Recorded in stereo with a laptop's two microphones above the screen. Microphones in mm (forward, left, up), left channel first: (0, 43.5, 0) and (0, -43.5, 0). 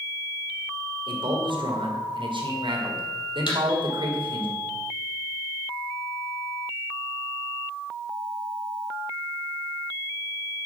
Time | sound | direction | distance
1.1 | a man speaking | 70° right (ahead or behind) | 2 m
3.5 | a thud | 70° left (ahead or behind) | 3.5 m